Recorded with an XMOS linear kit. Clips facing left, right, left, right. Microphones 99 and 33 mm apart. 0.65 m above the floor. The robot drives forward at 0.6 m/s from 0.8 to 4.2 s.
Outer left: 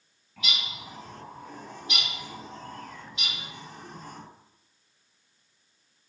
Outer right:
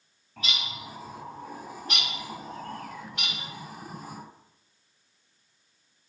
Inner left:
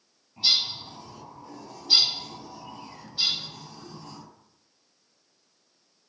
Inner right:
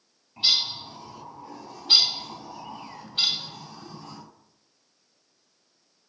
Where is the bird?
35° right (ahead or behind), 3 m; by 4.2 s 75° right (ahead or behind), 1.7 m.